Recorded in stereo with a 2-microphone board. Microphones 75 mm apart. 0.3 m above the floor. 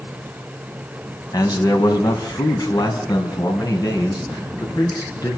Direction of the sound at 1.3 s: 60° left (ahead or behind).